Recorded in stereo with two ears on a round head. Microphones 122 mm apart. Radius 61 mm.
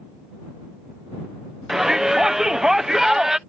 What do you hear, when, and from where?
1.7 s a shout: 5° right (ahead or behind)